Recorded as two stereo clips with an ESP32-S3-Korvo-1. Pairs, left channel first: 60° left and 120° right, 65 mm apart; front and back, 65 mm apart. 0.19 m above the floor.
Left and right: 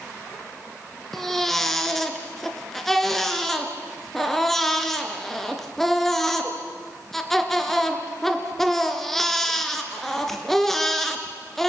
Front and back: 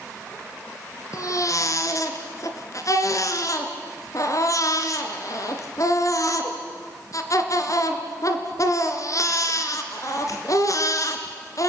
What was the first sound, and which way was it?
A baby crying, 25° right.